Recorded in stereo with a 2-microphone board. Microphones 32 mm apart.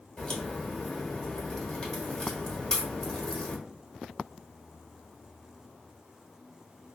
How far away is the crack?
About 1.2 m.